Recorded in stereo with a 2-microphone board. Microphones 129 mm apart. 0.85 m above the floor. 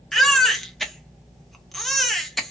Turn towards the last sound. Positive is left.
turn(degrees=0)  # may be behind; listen again after turning